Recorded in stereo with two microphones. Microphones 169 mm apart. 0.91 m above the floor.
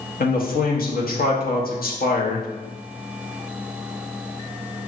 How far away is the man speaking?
About 0.9 m.